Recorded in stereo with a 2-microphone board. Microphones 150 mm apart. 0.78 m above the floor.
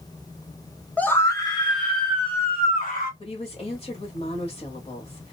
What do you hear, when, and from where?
1.0 s a scream: 10° left (ahead or behind), 0.7 m; by 3.1 s 45° left (ahead or behind), 1.2 m
3.2 s a woman speaking: 40° left (ahead or behind), 1.1 m